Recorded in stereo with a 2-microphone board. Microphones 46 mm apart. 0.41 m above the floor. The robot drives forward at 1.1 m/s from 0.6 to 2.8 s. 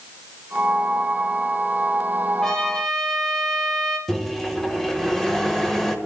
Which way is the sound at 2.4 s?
15° left (ahead or behind).